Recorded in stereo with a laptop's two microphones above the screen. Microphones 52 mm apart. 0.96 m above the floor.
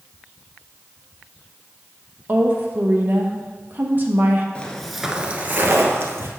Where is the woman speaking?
40° right (ahead or behind), 1.1 m.